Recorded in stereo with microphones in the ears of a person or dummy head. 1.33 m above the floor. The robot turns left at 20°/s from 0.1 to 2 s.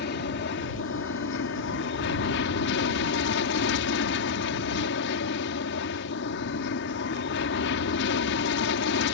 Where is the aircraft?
115° left; by 9.2 s 75° left.